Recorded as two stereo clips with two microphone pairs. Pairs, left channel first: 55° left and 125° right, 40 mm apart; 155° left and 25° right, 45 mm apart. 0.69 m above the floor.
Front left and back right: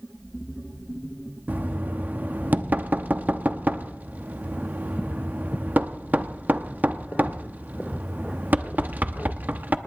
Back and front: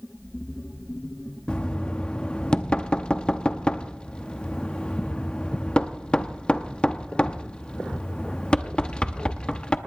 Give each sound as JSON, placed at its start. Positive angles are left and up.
{"t": 1.5, "sound": "knocking", "azimuth_deg": -145, "distance_m": 0.8}